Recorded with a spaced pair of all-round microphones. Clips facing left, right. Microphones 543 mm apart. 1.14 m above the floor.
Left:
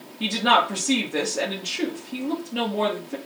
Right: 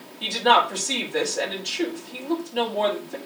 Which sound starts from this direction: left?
A woman speaking, at 0.2 s.